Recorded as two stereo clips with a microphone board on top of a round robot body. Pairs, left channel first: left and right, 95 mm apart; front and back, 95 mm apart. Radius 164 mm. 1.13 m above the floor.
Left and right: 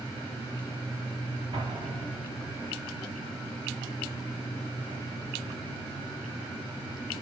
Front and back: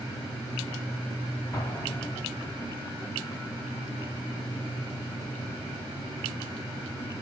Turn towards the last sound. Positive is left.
turn(degrees=-65)